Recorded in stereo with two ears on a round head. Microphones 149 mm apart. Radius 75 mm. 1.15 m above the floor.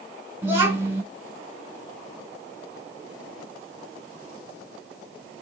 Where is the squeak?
I don't hear a squeak.